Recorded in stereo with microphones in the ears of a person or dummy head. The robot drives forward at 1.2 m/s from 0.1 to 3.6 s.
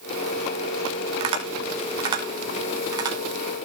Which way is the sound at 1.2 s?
40° right (ahead or behind).